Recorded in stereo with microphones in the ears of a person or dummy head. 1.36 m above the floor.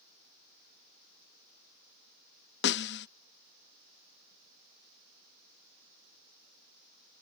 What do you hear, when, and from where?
2.6 s a snare drum: 50° left (ahead or behind)